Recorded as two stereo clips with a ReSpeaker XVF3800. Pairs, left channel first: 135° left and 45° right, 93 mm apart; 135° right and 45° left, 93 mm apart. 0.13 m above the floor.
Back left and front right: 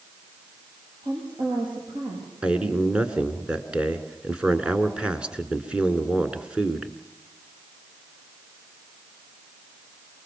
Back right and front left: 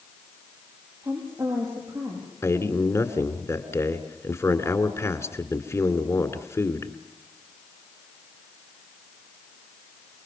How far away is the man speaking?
About 1.7 m.